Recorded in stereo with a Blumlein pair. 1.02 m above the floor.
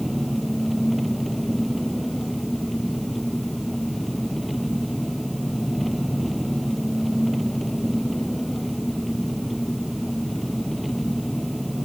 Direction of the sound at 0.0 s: Straight ahead.